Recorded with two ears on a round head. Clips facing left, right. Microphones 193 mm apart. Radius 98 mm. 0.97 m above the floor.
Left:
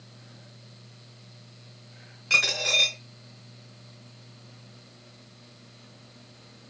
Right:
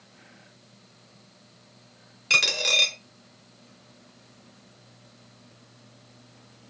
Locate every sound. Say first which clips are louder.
2.3 s a dropped coin: right 1 dB; 45° right (ahead or behind), 1.0 m